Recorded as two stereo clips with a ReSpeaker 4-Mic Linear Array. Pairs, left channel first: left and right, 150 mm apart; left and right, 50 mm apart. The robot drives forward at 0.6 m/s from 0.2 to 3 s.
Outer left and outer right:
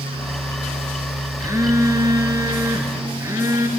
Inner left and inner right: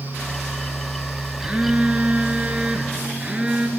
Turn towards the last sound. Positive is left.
turn(degrees=-20)  # may be behind; listen again after turning